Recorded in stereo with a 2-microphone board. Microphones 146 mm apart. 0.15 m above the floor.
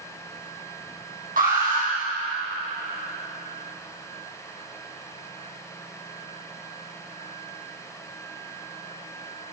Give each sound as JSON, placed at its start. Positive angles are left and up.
{"t": 1.4, "sound": "an alarm", "side_deg": -70, "distance_m": 4.5}